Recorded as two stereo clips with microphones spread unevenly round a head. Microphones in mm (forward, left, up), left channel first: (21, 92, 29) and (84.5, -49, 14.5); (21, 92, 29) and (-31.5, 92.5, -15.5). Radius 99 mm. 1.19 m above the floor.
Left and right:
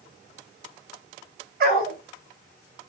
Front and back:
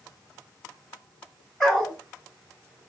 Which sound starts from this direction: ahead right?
A dog barking, at 1.6 s.